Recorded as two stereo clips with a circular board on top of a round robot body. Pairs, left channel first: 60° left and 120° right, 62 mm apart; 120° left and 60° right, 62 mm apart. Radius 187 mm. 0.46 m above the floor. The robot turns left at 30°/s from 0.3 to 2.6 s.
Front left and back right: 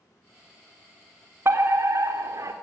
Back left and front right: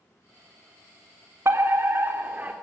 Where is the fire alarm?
85° right, 3.5 m; by 2.5 s 120° right, 3.5 m.